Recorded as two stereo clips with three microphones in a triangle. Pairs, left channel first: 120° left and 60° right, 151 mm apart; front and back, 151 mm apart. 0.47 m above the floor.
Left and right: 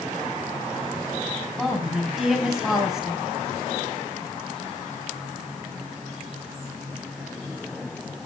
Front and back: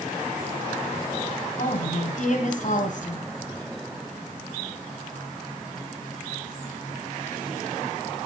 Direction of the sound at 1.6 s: 35° left.